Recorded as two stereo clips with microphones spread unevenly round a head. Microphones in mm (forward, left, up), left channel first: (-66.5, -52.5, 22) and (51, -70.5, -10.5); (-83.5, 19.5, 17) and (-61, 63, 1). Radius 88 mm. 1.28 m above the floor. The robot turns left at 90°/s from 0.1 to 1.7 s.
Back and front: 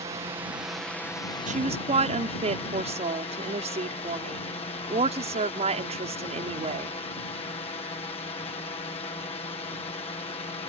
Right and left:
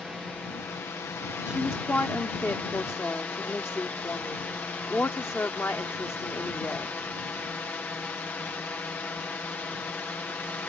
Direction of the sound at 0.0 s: 20° right.